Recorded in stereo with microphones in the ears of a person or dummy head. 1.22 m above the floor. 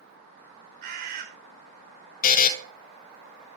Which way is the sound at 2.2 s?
45° left (ahead or behind).